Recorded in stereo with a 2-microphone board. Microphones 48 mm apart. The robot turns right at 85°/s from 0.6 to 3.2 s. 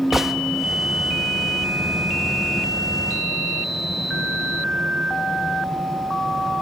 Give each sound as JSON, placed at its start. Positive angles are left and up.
{"t": 0.1, "sound": "a gunshot", "side_deg": -5, "distance_m": 0.8}